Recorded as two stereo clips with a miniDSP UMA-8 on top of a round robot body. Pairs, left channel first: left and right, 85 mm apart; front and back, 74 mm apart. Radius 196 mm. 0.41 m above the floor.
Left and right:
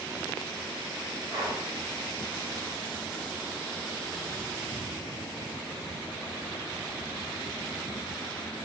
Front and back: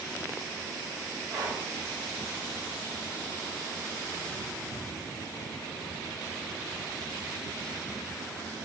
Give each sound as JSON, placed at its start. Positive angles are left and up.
{"t": 1.3, "sound": "breathing", "azimuth_deg": -145, "distance_m": 1.8}